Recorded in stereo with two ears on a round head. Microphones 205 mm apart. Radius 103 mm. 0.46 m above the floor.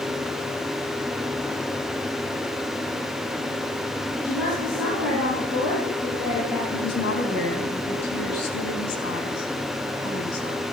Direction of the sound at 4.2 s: Centre (ahead or behind).